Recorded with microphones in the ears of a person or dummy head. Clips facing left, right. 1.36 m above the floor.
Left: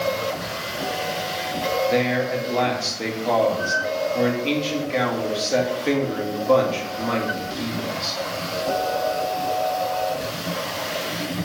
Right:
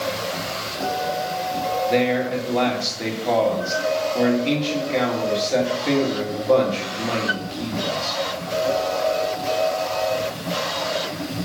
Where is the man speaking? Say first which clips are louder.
Right 3 dB; centre (ahead or behind), 2 m.